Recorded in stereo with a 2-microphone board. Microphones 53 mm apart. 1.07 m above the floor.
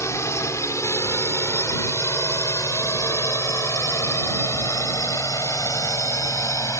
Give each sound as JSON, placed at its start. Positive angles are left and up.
{"t": 0.0, "sound": "a drone", "side_deg": 70}